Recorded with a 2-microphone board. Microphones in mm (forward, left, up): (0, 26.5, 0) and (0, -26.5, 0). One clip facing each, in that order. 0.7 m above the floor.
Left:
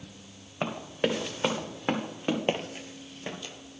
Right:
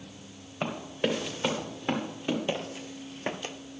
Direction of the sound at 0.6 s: 20° left (ahead or behind).